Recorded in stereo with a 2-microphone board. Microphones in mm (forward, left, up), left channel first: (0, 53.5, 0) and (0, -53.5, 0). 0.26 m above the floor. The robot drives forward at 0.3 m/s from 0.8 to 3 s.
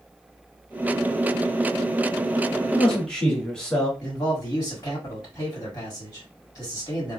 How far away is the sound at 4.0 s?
About 1.8 m.